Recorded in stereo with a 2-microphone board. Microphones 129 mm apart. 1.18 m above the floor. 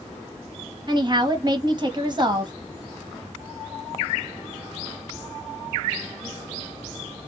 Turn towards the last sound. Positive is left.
turn(degrees=-35)  # may be behind; listen again after turning